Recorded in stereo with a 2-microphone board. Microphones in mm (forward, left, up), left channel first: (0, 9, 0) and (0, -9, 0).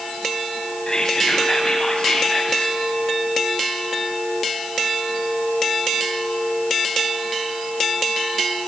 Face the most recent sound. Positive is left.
turn(degrees=40)  # may be behind; listen again after turning